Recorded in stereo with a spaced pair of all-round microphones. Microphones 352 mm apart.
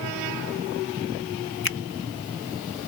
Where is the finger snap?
70° left (ahead or behind).